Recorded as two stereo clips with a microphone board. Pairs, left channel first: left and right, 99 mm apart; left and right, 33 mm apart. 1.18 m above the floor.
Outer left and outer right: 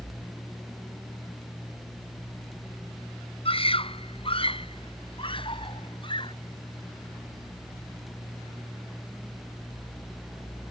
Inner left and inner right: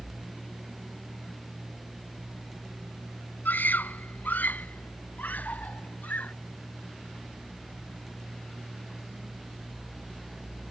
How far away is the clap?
I don't hear a clap.